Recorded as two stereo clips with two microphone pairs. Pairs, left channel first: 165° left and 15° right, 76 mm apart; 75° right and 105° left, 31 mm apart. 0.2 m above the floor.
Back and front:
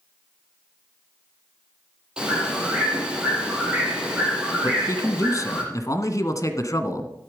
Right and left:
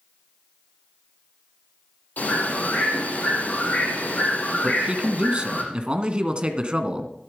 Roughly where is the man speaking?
Behind left.